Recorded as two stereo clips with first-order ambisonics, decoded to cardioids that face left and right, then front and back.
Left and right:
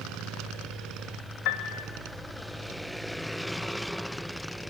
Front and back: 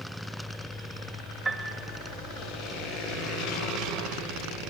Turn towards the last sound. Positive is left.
turn(degrees=105)